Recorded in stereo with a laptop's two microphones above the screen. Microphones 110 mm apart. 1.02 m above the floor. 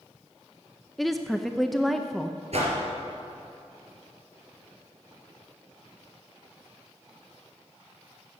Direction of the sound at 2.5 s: 65° right (ahead or behind).